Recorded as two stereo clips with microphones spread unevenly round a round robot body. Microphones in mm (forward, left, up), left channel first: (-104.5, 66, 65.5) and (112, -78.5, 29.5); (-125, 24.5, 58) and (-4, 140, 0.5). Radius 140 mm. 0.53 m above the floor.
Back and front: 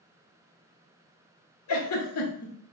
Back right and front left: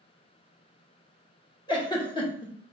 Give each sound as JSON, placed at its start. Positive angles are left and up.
{"t": 1.7, "sound": "a giggle", "azimuth_deg": 150, "distance_m": 1.0}